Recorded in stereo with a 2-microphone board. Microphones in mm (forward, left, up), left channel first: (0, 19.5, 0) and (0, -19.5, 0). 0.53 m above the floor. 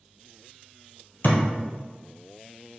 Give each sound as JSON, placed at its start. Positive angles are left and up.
{"t": 1.2, "sound": "a thud", "side_deg": 60, "distance_m": 1.3}